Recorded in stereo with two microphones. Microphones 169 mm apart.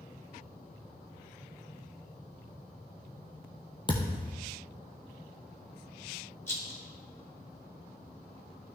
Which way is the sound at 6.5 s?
15° left (ahead or behind).